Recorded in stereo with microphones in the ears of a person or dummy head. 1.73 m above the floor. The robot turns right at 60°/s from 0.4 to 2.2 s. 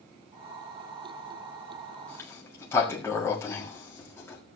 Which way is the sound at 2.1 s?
10° left (ahead or behind).